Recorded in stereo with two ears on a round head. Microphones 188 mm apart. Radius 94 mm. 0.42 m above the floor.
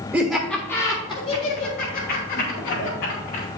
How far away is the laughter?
About 1.3 m.